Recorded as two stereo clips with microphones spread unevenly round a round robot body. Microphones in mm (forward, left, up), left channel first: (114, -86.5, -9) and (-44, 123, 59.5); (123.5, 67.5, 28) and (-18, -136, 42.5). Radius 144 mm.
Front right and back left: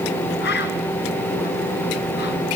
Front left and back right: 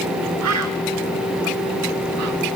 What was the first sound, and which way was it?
A bird, 115° right.